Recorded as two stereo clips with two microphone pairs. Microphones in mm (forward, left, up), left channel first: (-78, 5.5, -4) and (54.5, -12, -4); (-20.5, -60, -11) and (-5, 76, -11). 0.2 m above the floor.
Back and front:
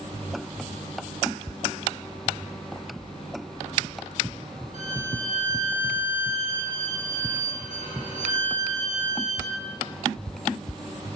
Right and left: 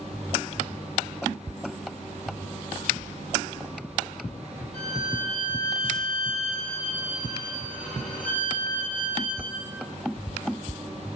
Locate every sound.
4.7 s a violin: 15° right, 4.5 m